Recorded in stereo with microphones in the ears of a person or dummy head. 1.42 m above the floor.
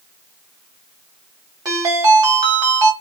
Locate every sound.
1.6 s a ringtone: 25° right (ahead or behind), 1.1 m